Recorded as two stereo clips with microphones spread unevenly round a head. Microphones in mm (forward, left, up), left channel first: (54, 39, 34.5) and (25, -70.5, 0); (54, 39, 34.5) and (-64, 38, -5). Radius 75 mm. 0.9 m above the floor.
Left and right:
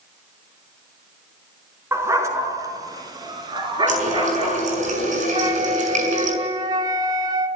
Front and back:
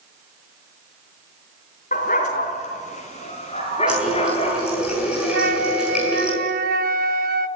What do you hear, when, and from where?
1.9 s a dog barking: 35° right, 4 m; by 4.8 s 60° right, 6.5 m
3.9 s a running tap: 95° right, 6 m
5.3 s a flute: 175° right, 1.2 m